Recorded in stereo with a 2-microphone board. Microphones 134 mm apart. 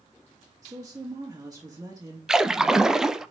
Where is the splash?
5° right (ahead or behind), 0.6 m.